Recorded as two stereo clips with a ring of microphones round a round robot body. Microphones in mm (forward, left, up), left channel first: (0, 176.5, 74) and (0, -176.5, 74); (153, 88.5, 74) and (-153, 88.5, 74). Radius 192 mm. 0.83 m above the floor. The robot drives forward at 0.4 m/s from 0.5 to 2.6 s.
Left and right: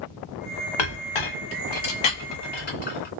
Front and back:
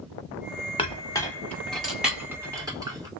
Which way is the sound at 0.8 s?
75° left.